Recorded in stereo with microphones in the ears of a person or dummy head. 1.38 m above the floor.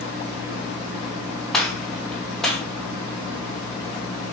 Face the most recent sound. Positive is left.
turn(degrees=0)  # may be behind; listen again after turning